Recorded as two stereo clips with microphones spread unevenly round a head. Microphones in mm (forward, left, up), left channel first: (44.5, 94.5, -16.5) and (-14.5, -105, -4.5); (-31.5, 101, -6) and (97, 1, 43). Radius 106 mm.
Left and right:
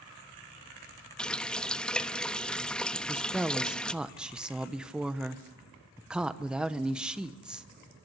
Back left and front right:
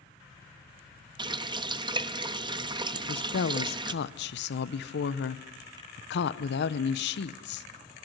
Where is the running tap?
15° right, 1.0 m.